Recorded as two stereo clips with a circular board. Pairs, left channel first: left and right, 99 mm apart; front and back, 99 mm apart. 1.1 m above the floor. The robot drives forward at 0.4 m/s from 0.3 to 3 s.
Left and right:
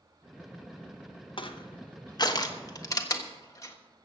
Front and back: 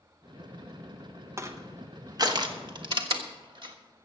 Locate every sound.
1.4 s crushing: 120° left, 0.9 m; by 3.8 s 145° left, 1.3 m